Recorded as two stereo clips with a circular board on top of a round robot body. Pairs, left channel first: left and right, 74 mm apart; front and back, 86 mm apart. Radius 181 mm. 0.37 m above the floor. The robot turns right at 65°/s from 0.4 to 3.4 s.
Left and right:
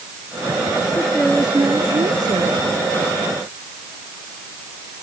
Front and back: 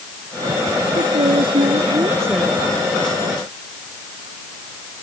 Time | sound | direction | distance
0.9 | a woman speaking | 160° left | ?